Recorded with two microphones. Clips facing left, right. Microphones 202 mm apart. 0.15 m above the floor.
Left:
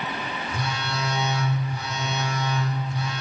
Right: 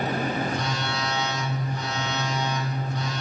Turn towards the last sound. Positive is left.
turn(degrees=10)  # may be behind; listen again after turning